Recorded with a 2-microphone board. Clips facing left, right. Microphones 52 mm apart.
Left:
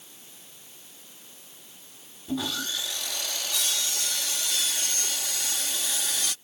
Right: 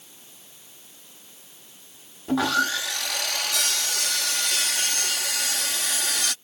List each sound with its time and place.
2.3 s sawing: 80° right